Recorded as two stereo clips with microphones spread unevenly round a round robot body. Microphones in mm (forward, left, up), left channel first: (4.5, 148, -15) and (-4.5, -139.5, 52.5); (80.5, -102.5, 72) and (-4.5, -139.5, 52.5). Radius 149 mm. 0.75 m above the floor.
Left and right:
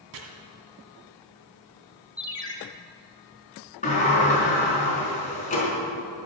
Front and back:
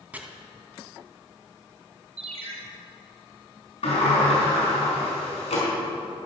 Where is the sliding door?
20° left, 4.5 m.